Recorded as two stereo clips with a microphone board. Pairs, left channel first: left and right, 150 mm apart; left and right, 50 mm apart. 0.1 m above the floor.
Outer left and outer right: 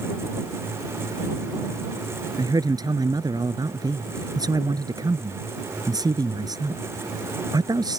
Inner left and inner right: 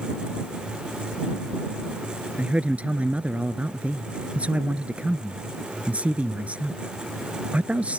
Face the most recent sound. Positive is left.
turn(degrees=-25)  # may be behind; listen again after turning